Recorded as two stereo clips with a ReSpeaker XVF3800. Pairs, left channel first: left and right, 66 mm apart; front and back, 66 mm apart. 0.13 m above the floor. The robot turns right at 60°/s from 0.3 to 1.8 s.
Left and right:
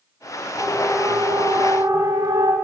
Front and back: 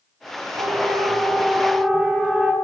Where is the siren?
Straight behind, 10 m; by 2.5 s 100° right, 8.5 m.